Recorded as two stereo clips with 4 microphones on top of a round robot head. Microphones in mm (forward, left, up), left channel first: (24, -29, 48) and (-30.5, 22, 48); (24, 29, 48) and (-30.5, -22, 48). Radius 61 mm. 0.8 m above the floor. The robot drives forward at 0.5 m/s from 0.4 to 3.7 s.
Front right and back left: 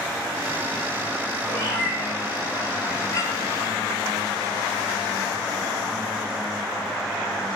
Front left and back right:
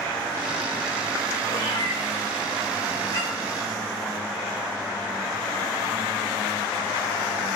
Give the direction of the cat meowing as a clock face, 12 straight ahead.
12 o'clock.